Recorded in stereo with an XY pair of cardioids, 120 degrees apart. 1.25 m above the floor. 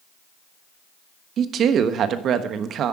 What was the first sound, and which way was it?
A woman speaking, 55° right.